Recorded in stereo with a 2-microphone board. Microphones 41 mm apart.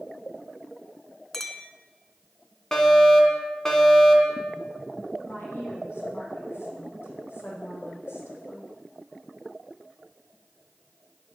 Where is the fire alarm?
10° left (ahead or behind), 2.5 m.